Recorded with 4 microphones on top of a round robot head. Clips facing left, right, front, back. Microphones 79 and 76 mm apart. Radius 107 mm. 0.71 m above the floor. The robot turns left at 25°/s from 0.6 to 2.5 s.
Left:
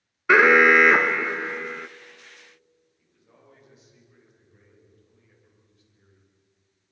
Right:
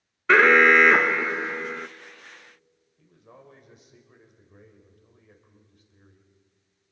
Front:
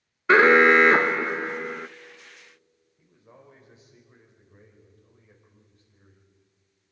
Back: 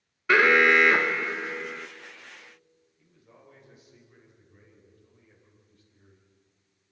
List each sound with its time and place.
0.3 s an alarm: 15° left, 0.6 m; by 1.9 s 20° right, 0.6 m
3.0 s a man speaking: 55° right, 4 m